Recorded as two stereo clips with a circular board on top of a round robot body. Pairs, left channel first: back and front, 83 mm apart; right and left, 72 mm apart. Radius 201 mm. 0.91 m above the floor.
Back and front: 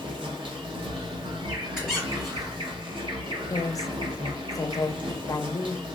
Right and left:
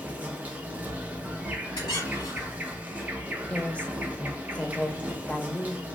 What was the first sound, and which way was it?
An insect, 20° left.